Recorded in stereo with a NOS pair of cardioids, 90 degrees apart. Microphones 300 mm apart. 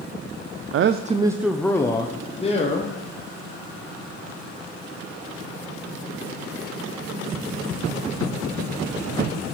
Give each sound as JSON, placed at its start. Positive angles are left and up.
{"t": 0.7, "sound": "a man speaking", "azimuth_deg": -50, "distance_m": 0.5}